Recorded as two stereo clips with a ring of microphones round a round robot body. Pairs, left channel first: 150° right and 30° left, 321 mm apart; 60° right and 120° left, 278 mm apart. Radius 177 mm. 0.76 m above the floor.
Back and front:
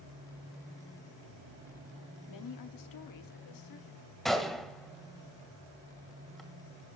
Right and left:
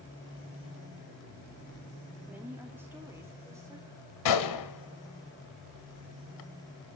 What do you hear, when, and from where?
2.3 s a woman speaking: 155° right, 1.7 m; by 4.0 s 160° right, 2.5 m
4.2 s a gunshot: 60° right, 1.7 m